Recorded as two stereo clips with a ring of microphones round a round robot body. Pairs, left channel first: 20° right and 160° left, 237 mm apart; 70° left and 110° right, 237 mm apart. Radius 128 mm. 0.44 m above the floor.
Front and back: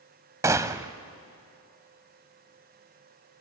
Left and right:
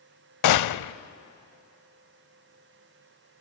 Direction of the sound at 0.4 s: 80° left.